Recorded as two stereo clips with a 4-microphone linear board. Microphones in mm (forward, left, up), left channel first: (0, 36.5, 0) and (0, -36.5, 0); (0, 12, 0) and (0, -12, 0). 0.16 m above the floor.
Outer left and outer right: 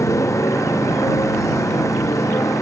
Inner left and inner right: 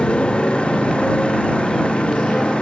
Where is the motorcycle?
50° left (ahead or behind).